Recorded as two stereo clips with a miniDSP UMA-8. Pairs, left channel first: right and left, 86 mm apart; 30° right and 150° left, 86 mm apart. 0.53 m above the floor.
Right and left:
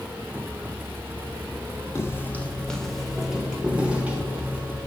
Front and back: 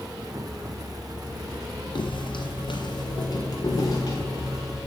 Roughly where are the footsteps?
Ahead right.